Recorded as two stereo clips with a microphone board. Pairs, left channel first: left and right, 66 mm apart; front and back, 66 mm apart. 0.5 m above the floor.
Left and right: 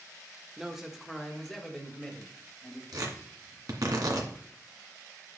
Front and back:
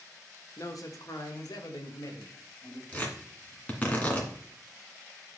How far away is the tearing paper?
About 2 m.